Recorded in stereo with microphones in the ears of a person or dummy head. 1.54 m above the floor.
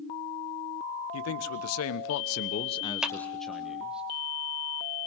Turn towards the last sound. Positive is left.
turn(degrees=-5)  # may be behind; listen again after turning